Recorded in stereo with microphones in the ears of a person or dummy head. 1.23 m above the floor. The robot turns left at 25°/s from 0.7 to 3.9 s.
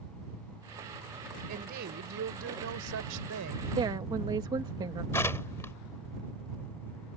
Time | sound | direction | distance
1.5 | a woman speaking | 45° right | ?
3.8 | a woman speaking | 25° right (ahead or behind) | ?
5.1 | tearing paper | 10° left (ahead or behind) | ?